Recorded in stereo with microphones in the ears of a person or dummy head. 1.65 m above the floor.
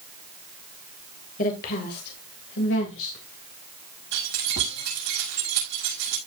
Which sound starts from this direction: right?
Keys jangling, at 4.1 s.